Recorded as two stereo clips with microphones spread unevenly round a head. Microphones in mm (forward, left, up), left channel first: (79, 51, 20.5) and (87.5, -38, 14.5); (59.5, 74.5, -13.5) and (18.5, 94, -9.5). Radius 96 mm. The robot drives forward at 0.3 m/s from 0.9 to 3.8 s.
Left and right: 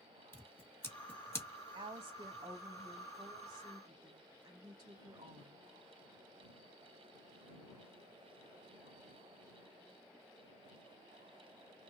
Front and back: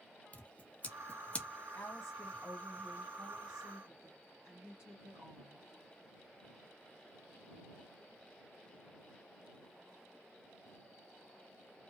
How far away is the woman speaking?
About 0.7 m.